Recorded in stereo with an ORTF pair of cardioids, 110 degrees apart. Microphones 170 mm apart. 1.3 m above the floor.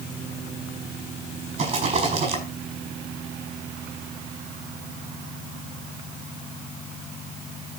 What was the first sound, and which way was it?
A rattle, 40° right.